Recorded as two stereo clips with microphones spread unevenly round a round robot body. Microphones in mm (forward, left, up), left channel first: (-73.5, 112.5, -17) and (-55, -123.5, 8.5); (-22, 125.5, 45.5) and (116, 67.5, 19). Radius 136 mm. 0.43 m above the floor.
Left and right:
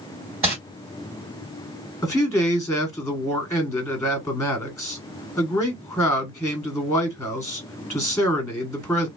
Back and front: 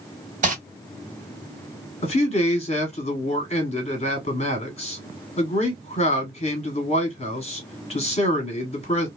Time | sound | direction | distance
0.4 | crumpling | straight ahead | 2 m
2.0 | a man speaking | 150° left | 1.4 m